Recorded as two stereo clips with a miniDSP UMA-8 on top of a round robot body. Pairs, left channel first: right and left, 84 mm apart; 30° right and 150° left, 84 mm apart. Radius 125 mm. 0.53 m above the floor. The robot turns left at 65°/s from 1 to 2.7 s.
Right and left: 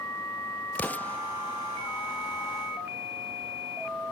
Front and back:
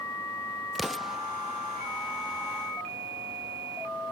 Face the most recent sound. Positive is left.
turn(degrees=125)